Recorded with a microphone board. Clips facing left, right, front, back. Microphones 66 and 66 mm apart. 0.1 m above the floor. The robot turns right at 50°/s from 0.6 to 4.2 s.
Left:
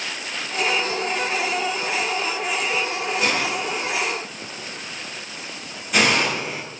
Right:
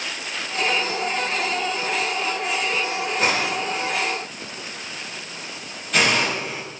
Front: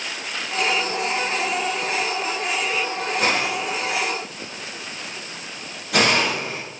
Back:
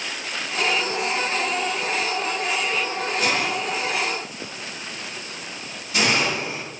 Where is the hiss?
45° right, 7 m; by 6.6 s 5° left, 7 m.